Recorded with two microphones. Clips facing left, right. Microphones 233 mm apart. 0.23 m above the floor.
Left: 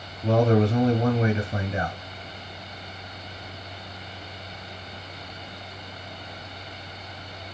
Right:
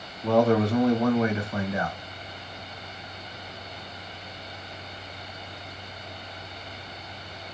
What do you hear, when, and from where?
0.2 s a man speaking: 30° left (ahead or behind), 1.1 m